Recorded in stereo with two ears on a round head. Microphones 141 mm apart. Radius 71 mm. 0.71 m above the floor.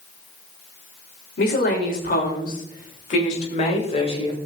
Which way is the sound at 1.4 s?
65° left (ahead or behind).